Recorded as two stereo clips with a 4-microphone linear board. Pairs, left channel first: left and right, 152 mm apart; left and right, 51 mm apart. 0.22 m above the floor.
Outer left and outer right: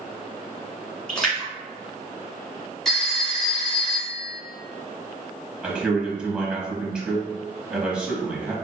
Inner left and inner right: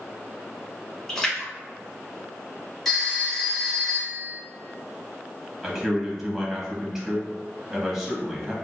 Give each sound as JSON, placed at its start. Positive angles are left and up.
{"t": 1.1, "sound": "a splash", "side_deg": 5, "distance_m": 1.4}
{"t": 2.9, "sound": "a phone ringing", "side_deg": 5, "distance_m": 1.2}
{"t": 5.6, "sound": "a man speaking", "side_deg": -5, "distance_m": 1.0}